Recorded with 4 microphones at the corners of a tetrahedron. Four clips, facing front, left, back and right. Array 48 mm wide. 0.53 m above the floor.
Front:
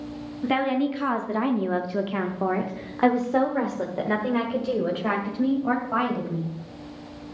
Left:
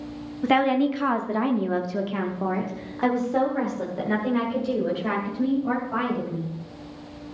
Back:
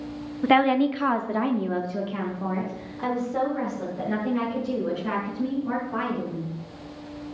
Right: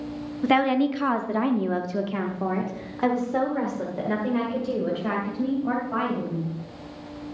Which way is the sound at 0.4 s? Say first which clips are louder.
Even, back 4 dB; 175° left.